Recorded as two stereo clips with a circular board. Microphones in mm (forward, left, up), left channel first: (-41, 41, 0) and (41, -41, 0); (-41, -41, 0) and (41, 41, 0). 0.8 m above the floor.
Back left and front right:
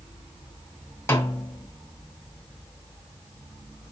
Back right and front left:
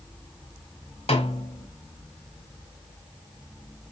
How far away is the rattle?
I don't hear a rattle.